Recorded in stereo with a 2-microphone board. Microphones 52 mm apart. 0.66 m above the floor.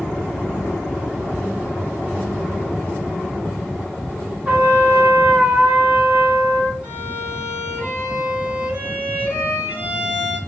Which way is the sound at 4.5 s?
30° right (ahead or behind).